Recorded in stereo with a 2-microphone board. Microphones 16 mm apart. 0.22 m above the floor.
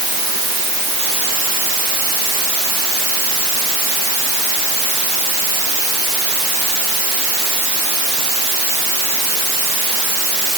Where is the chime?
No chime in this recording.